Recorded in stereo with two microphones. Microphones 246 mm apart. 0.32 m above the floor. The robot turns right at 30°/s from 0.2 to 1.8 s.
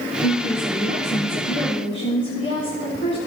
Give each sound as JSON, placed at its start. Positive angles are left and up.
{"t": 0.2, "sound": "a woman speaking", "azimuth_deg": 75, "distance_m": 3.5}